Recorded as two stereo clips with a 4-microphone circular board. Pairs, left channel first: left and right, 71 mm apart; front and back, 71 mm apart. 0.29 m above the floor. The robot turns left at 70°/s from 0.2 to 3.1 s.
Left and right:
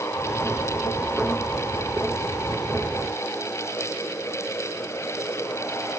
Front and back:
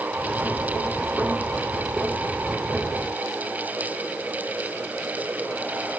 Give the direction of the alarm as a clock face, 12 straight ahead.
No alarm in this recording.